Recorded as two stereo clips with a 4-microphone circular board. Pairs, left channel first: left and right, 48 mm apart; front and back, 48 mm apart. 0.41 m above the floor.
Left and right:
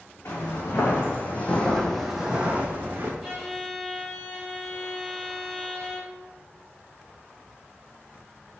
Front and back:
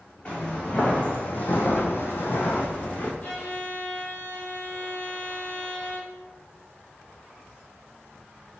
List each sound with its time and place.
0.2 s footsteps: 65° left, 1.4 m; by 3.1 s 50° right, 1.1 m
3.2 s a violin: straight ahead, 1.4 m